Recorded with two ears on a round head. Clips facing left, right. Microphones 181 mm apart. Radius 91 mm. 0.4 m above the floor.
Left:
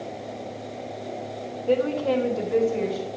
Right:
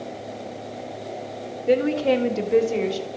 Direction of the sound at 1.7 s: 25° right (ahead or behind).